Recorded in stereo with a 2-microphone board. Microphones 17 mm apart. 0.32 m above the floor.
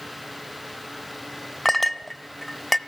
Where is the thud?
No thud in this recording.